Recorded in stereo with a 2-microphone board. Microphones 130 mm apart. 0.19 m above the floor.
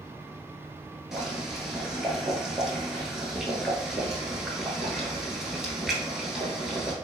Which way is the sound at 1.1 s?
5° right (ahead or behind).